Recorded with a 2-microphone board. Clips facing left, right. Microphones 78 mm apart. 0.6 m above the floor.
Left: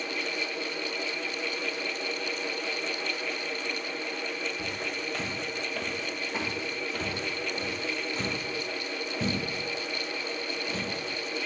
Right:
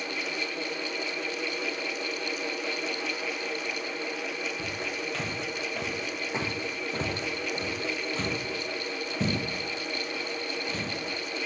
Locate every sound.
4.6 s footsteps: 5° left (ahead or behind), 1.1 m; by 10.9 s 25° right (ahead or behind), 2.5 m